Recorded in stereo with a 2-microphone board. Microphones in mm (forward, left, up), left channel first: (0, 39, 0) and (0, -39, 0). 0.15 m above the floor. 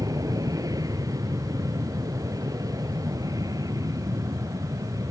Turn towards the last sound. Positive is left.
turn(degrees=-50)  # may be behind; listen again after turning